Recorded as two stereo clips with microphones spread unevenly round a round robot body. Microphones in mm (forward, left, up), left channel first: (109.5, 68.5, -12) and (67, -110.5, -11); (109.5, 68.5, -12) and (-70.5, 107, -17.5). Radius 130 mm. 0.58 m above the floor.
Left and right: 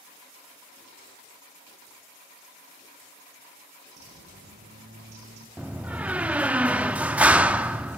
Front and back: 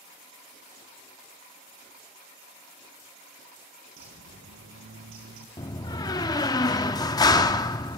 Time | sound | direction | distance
4.0 | a bird | 155° right | 2.5 m
5.6 | a door slam | 35° right | 0.6 m